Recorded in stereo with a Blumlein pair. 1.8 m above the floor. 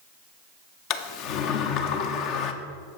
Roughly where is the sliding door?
Ahead left.